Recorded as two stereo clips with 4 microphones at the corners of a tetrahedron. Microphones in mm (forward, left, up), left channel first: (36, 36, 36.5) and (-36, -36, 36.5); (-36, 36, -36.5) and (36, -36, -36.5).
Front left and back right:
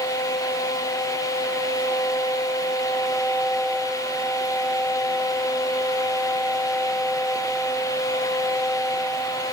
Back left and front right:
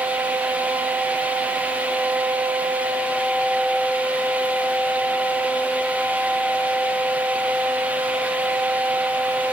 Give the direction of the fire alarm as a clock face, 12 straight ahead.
I don't hear a fire alarm.